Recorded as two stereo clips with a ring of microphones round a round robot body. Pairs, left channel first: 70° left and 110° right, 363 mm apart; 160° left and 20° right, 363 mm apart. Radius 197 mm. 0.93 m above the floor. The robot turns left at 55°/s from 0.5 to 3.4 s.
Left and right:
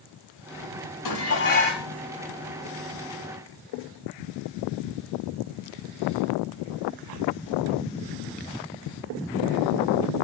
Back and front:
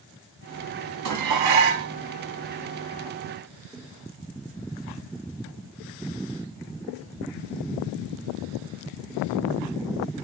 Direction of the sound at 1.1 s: 25° left.